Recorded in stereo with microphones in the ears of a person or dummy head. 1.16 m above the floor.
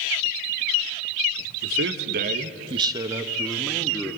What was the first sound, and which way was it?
A man speaking, 70° right (ahead or behind).